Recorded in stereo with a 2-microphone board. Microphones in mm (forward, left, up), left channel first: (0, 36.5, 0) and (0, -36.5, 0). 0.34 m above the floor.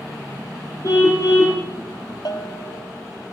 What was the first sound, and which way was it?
A car horn, 45° left (ahead or behind).